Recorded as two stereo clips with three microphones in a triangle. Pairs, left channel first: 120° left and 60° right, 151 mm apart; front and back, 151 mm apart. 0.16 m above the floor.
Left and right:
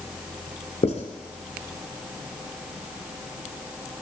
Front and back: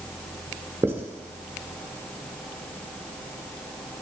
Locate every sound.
0.8 s writing: 110° left, 1.0 m